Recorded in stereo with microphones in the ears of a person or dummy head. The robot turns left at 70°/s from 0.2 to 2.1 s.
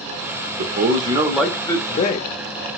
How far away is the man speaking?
About 0.6 m.